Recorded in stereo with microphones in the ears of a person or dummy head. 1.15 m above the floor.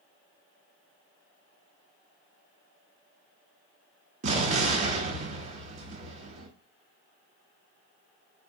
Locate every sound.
4.2 s an explosion: 40° right (ahead or behind), 0.9 m